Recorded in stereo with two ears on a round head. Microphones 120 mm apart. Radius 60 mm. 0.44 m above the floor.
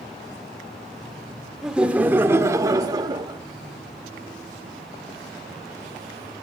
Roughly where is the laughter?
Centre.